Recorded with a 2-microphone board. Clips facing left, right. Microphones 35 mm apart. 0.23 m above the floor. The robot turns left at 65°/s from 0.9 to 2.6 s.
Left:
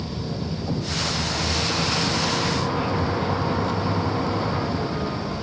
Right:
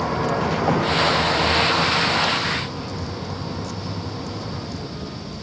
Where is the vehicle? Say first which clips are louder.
Right 9 dB; 80° right; by 5.4 s 35° left (ahead or behind).